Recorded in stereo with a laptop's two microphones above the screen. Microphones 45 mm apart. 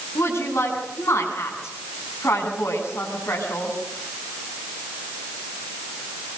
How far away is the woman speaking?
About 8.5 m.